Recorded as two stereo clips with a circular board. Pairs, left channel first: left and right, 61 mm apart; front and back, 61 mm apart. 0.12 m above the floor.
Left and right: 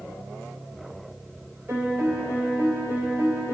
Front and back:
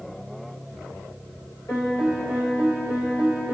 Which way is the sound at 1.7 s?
40° right.